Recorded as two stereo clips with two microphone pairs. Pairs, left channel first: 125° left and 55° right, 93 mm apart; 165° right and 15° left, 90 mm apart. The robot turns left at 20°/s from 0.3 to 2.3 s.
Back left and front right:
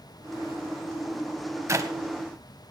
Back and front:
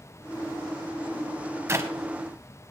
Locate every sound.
1.7 s a clap: 20° right, 1.2 m; by 1.9 s 25° right, 1.2 m